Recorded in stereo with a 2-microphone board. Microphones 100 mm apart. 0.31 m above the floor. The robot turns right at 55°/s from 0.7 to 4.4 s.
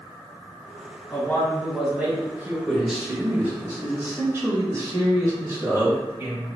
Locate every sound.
1.1 s a man speaking: 140° left, 1.6 m; by 2.6 s 135° right, 1.6 m
2.7 s a man speaking: centre (ahead or behind), 1.1 m; by 6.6 s 30° right (ahead or behind), 1.1 m